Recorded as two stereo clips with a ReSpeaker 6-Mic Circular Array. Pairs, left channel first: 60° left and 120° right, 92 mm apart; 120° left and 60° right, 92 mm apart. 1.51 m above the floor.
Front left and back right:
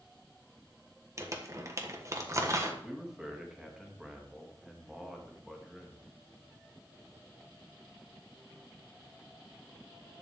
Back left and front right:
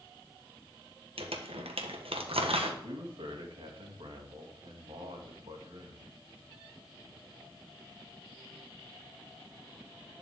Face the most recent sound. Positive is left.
turn(degrees=-35)